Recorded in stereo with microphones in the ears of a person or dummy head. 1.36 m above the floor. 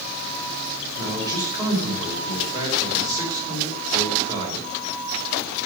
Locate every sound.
1.0 s a man speaking: 15° right (ahead or behind), 4.5 m